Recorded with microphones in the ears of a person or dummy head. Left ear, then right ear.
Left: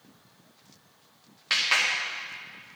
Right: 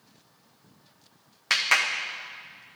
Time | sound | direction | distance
1.5 | a clap | 30° right (ahead or behind) | 1.1 m